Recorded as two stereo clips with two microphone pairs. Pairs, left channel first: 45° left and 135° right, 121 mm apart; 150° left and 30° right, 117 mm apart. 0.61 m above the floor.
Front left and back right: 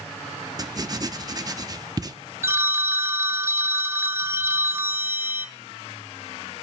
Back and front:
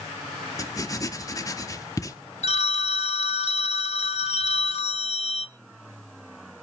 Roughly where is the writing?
Behind.